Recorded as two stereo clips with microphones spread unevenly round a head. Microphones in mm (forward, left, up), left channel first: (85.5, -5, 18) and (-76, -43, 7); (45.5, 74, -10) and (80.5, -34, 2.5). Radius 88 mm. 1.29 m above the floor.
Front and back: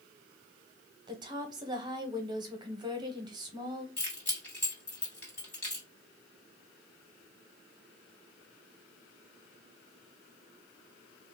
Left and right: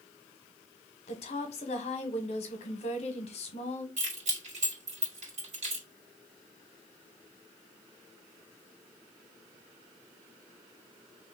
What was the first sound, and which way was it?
A woman speaking, 130° left.